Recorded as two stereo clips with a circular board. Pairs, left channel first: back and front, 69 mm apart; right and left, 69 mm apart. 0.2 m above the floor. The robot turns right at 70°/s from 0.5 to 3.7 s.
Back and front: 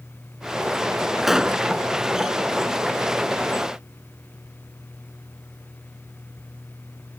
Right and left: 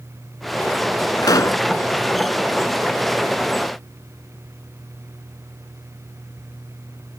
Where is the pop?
90° right; by 1.6 s 60° right.